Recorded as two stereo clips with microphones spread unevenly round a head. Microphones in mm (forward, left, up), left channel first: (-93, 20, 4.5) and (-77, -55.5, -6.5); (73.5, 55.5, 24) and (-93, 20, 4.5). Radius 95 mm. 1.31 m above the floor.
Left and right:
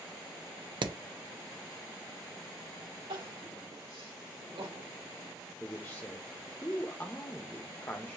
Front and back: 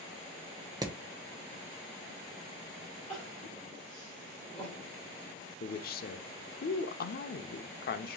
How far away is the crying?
About 3 m.